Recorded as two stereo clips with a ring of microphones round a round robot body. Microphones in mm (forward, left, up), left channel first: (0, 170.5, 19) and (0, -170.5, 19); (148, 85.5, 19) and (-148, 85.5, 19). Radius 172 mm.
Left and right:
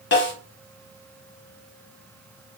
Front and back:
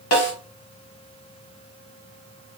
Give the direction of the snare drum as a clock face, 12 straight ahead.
11 o'clock.